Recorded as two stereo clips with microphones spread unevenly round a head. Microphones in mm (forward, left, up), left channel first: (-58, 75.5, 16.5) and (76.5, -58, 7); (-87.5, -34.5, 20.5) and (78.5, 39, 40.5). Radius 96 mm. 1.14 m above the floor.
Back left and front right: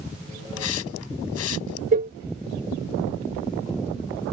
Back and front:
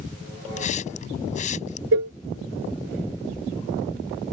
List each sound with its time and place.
0.6 s a hiss: 150° left
1.9 s a cowbell: 5° left